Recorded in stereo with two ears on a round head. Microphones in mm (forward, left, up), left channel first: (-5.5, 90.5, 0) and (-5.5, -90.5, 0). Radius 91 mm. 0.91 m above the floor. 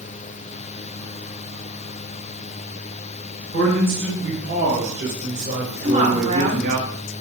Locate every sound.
3.5 s a man speaking: 50° right (ahead or behind), 6 m
5.8 s a woman speaking: 40° right (ahead or behind), 2.5 m